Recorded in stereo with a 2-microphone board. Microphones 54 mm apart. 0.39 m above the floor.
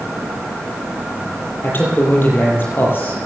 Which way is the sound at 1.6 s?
40° left (ahead or behind).